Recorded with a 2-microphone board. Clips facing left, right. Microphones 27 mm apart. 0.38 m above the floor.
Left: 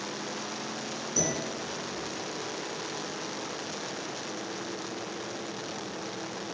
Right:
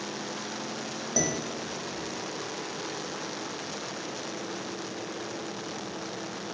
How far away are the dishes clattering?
About 1.0 m.